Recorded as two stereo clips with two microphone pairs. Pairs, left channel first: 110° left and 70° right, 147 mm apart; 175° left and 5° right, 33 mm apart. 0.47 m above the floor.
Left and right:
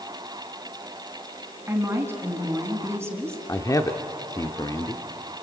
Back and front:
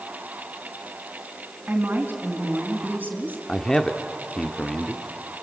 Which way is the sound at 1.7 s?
Straight ahead.